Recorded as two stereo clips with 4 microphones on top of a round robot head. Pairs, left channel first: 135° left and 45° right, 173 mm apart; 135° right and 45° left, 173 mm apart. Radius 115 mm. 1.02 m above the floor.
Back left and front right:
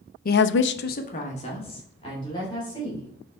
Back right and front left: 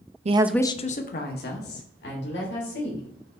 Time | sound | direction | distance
0.2 | a woman speaking | 95° left | 0.5 m